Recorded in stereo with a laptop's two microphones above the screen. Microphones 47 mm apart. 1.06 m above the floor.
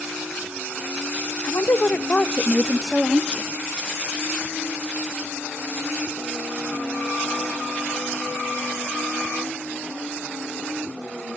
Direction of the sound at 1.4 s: 70° left (ahead or behind).